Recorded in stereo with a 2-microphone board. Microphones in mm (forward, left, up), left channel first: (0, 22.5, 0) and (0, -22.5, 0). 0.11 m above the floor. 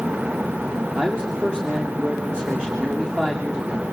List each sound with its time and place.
0.9 s a man speaking: 20° right (ahead or behind), 7 m